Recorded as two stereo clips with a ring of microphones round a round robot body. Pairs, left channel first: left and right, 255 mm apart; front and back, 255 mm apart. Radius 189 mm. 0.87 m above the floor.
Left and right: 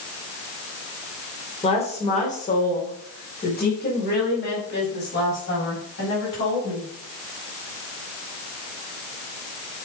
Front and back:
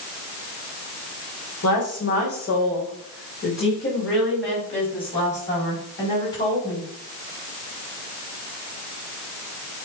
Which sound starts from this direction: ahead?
A woman speaking, at 1.6 s.